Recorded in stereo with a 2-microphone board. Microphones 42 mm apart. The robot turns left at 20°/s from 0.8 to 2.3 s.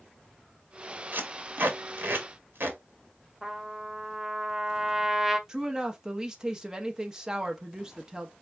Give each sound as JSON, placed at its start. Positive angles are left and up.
{"t": 1.1, "sound": "tape being pulled", "side_deg": -55, "distance_m": 1.0}
{"t": 3.4, "sound": "a trumpet", "side_deg": -10, "distance_m": 0.6}
{"t": 5.5, "sound": "a woman speaking", "side_deg": -15, "distance_m": 0.6}